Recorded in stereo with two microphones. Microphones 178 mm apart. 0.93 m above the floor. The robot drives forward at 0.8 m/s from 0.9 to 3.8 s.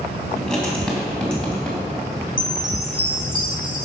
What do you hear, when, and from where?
0.4 s writing: 5° left (ahead or behind), 3 m
2.4 s a chime: 50° left (ahead or behind), 1.0 m; by 3.9 s 25° left (ahead or behind), 1.9 m